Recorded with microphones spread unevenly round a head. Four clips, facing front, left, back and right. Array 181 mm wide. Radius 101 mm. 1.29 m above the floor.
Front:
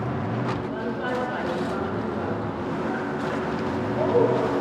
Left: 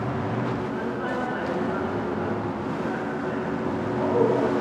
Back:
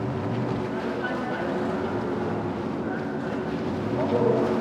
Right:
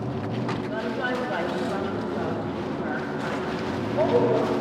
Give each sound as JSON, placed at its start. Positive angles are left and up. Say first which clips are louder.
{"t": 0.7, "sound": "a woman speaking", "louder": "even, front 1 dB", "azimuth_deg": -80, "distance_m": 3.0}